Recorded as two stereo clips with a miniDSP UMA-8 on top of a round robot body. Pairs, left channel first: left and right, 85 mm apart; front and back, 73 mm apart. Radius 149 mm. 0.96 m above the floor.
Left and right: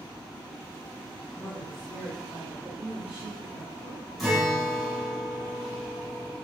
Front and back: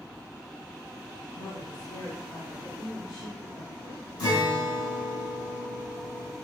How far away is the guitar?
About 4.5 m.